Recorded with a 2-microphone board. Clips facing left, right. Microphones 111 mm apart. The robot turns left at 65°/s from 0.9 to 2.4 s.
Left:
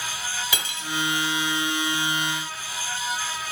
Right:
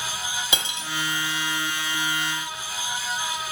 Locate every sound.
0.5 s cutlery clinking: 25° right (ahead or behind), 0.6 m